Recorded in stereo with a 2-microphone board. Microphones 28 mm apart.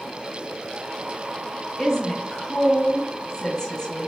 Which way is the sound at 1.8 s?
20° left (ahead or behind).